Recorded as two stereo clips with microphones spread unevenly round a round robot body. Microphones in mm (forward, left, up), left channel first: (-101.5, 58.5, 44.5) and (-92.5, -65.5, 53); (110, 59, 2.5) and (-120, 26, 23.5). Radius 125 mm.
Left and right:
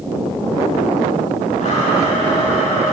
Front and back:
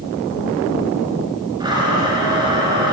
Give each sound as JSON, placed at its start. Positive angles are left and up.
{"t": 1.6, "sound": "a blender", "azimuth_deg": 115, "distance_m": 6.0}